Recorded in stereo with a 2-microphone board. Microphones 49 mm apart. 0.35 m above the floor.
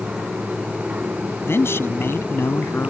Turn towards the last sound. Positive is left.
turn(degrees=65)  # may be behind; listen again after turning